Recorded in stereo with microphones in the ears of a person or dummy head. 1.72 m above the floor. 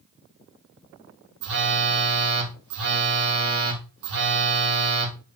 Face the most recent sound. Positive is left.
turn(degrees=-70)  # may be behind; listen again after turning